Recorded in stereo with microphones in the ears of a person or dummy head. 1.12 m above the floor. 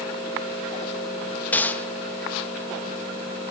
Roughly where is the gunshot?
Centre.